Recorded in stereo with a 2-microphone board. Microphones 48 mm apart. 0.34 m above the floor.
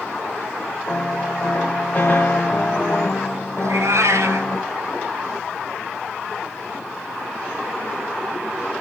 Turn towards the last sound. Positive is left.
turn(degrees=-75)  # may be behind; listen again after turning